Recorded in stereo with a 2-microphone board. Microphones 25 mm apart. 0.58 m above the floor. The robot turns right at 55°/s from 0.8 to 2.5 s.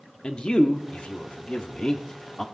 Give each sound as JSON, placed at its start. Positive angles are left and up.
{"t": 0.2, "sound": "a man speaking", "side_deg": 40, "distance_m": 0.8}